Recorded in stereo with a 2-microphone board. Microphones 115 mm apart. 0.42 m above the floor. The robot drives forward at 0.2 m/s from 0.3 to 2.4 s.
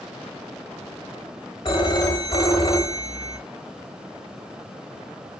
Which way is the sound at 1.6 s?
45° left (ahead or behind).